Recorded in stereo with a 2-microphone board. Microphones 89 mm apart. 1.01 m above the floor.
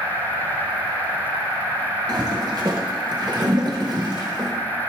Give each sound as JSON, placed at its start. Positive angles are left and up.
{"t": 2.1, "sound": "a toilet flushing", "side_deg": -50, "distance_m": 1.2}